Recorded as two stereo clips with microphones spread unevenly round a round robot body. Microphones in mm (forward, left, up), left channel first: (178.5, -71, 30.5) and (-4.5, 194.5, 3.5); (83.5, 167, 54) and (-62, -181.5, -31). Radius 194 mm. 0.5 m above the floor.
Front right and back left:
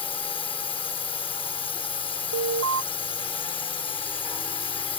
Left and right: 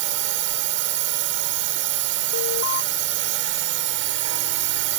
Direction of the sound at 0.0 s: 130° right.